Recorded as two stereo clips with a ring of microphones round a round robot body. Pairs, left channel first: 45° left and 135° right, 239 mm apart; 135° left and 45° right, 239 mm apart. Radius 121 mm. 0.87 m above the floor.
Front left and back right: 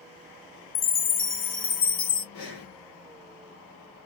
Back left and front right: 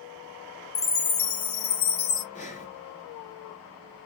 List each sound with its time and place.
0.8 s a chime: 100° left, 0.8 m
2.3 s breathing: 75° left, 2.5 m